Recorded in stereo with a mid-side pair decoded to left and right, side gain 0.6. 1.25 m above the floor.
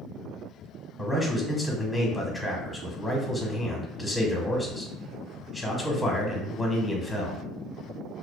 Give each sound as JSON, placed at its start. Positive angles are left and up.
{"t": 1.0, "sound": "a man speaking", "azimuth_deg": 15, "distance_m": 1.0}